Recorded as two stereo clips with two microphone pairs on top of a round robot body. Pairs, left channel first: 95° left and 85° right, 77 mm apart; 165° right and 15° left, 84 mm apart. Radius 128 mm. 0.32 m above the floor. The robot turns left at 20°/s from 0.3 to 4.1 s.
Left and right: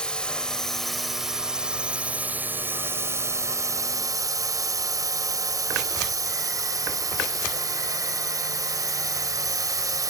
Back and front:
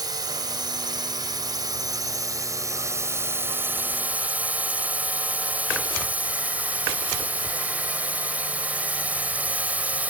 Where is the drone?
25° left; by 10.1 s 55° right.